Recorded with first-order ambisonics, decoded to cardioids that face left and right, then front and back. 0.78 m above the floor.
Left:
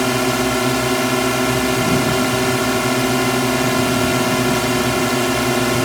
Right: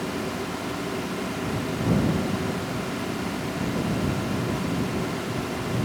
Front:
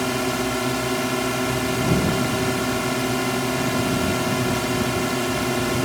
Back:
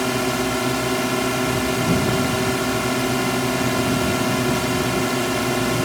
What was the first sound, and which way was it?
A drone, 95° left.